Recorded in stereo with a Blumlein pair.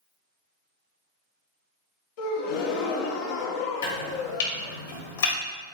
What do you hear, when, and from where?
2.2 s a gasp: 50° left, 1.4 m
3.8 s chopping: 60° left, 3 m